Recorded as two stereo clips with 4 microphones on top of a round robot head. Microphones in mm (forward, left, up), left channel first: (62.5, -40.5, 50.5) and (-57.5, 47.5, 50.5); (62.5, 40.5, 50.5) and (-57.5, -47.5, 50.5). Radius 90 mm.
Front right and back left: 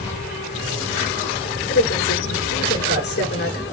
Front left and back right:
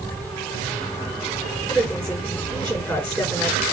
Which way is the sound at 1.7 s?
45° right.